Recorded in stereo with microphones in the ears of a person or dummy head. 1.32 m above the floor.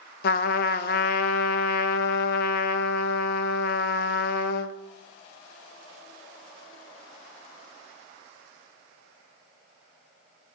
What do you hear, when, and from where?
0.2 s a trumpet: 60° left (ahead or behind), 0.8 m